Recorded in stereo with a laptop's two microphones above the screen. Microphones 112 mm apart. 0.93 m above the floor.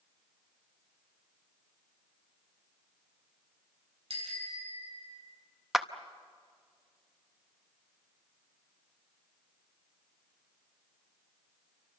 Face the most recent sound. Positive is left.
turn(degrees=0)  # may be behind; listen again after turning